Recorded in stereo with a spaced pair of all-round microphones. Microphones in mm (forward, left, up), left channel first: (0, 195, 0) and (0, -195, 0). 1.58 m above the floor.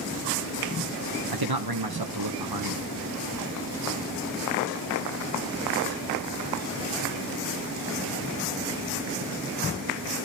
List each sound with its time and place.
1.3 s a man speaking: 65° right (ahead or behind), 1.2 m